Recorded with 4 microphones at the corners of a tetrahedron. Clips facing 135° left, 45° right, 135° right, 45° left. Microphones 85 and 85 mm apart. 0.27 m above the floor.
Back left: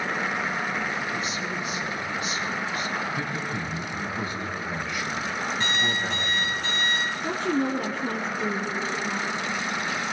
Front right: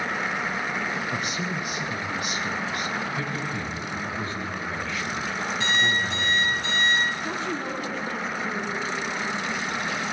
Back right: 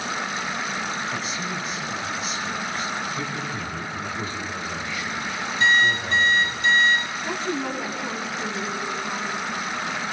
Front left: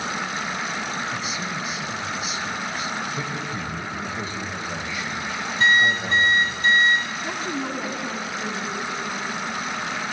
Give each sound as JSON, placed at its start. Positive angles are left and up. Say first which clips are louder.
{"t": 1.1, "sound": "a man speaking", "louder": "front right 1 dB, even", "azimuth_deg": -40, "distance_m": 2.0}
{"t": 3.1, "sound": "a man speaking", "louder": "even, even", "azimuth_deg": 80, "distance_m": 1.9}
{"t": 5.6, "sound": "an alarm clock", "louder": "front right 4 dB, front left 1 dB", "azimuth_deg": 90, "distance_m": 7.0}
{"t": 7.2, "sound": "a woman speaking", "louder": "back left 4 dB, back right 1 dB", "azimuth_deg": 130, "distance_m": 2.0}